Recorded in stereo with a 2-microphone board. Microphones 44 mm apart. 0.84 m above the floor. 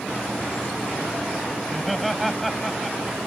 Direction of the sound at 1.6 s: Centre (ahead or behind).